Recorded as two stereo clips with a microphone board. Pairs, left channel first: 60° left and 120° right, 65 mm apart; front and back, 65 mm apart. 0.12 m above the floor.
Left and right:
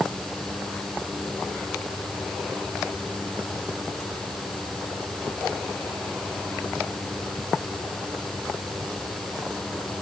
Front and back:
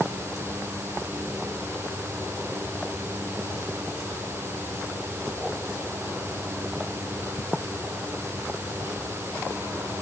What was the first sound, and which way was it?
Only background noise.